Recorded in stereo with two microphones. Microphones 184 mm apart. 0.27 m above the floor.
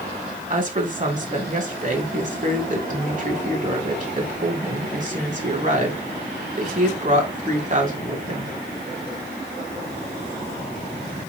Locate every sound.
0.5 s a woman speaking: 45° right (ahead or behind), 2.5 m